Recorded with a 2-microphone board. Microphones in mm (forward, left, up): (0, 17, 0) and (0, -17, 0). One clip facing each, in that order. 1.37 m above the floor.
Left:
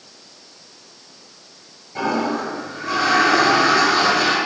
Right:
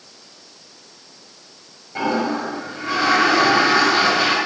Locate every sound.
1.9 s a toilet flushing: 15° right (ahead or behind), 7 m